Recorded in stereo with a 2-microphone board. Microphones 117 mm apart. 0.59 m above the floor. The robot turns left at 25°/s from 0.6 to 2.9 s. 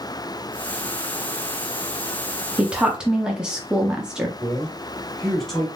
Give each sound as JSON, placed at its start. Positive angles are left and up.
{"t": 2.6, "sound": "a woman speaking", "side_deg": -10, "distance_m": 0.6}
{"t": 4.4, "sound": "a man speaking", "side_deg": 5, "distance_m": 1.9}